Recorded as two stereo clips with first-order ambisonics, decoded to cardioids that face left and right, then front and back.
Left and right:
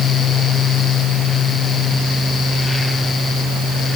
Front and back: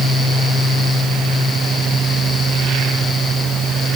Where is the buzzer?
No buzzer in this recording.